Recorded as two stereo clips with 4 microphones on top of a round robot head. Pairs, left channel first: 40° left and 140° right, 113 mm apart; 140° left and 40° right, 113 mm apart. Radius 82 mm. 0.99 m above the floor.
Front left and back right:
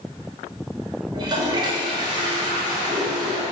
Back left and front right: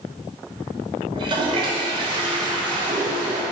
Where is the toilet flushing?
90° right, 1.5 m.